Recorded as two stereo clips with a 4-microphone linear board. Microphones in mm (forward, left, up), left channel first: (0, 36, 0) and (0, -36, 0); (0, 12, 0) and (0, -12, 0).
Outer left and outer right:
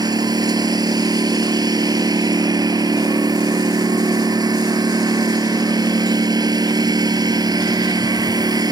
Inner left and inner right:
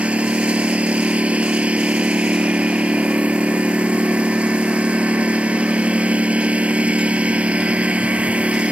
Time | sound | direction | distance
0.0 | a lawn mower | 70° right (ahead or behind) | ?